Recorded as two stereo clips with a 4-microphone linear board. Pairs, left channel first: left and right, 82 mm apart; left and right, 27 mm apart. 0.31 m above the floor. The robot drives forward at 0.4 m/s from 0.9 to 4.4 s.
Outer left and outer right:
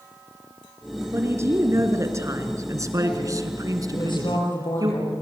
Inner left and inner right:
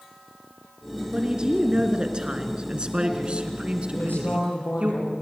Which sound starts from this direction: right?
A woman speaking, at 1.1 s.